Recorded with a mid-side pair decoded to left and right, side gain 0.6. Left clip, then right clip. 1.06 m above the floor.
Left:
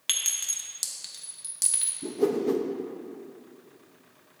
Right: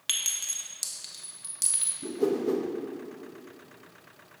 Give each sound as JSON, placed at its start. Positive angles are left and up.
{"t": 0.1, "sound": "a clink", "azimuth_deg": 5, "distance_m": 0.8}
{"t": 2.0, "sound": "a whoosh", "azimuth_deg": 15, "distance_m": 0.6}